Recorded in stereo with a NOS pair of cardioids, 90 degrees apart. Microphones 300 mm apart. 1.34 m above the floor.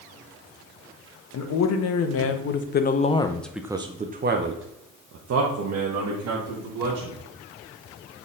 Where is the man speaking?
65° left, 1.3 m; by 7.2 s 70° right, 2 m.